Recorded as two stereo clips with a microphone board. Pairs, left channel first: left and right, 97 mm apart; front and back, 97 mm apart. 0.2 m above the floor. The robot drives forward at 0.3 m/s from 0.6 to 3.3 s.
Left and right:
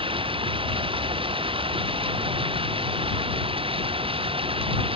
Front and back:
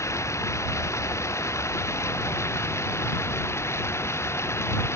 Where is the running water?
60° right; by 5.0 s 65° right.